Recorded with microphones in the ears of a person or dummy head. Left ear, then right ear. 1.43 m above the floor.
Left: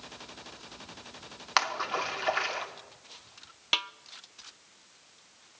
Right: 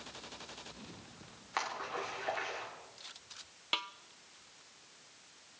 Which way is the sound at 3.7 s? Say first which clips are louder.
Left 7 dB; 15° left (ahead or behind).